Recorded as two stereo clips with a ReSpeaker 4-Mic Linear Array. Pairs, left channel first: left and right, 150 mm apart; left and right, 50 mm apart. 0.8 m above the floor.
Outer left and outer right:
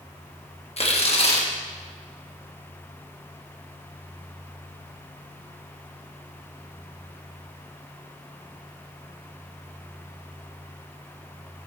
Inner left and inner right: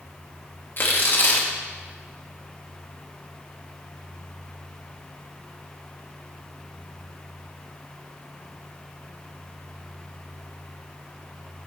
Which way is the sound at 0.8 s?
50° left (ahead or behind).